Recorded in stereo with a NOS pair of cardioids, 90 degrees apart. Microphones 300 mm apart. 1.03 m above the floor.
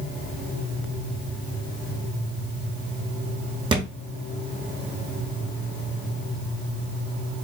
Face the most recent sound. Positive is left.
turn(degrees=-15)